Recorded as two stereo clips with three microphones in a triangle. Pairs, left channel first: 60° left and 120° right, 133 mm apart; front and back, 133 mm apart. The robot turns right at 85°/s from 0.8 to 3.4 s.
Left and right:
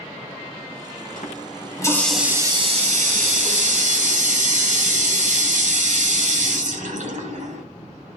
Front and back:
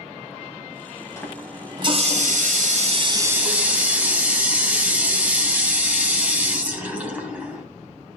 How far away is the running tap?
About 2.5 m.